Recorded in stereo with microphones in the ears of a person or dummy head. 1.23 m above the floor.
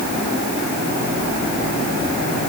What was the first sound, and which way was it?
Only background noise.